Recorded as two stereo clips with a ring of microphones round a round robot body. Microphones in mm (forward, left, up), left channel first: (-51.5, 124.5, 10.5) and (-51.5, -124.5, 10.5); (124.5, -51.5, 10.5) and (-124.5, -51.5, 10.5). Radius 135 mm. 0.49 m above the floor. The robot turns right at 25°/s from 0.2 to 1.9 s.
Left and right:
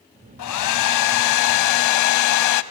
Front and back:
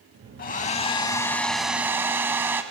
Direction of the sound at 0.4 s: 60° left.